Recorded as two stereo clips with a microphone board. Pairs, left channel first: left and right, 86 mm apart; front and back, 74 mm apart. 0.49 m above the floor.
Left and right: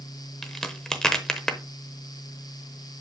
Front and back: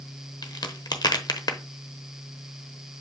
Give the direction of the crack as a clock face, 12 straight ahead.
12 o'clock.